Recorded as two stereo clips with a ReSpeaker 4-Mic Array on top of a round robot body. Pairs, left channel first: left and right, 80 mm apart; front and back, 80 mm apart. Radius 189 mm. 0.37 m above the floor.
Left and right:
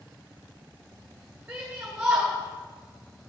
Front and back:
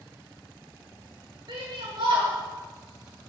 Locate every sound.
1.5 s a shout: 165° right, 3.5 m